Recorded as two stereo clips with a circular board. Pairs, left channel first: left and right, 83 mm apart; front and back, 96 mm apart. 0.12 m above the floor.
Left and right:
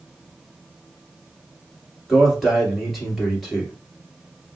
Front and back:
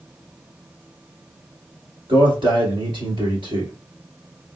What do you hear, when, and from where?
2.1 s a man speaking: straight behind, 2.0 m